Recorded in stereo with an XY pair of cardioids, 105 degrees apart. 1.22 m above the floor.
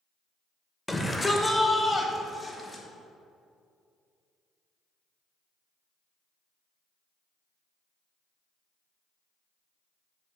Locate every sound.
0.9 s a shout: 10° left, 1.1 m; by 2.8 s 20° left, 2.5 m